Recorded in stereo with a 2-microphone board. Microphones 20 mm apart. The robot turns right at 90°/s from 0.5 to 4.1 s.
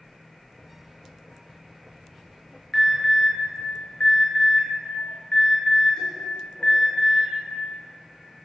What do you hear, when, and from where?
2.7 s an alarm: 10° left (ahead or behind), 6 m; by 7.3 s 45° left (ahead or behind), 6 m